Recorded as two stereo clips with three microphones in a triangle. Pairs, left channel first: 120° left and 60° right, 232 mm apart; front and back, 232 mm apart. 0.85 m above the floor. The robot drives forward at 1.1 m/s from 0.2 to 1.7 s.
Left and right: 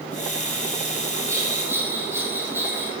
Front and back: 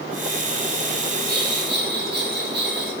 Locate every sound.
1.3 s a bell: 135° right, 6.5 m; by 2.9 s 140° right, 6.5 m